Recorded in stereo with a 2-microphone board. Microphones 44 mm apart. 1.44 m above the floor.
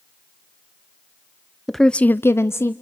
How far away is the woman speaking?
About 0.8 m.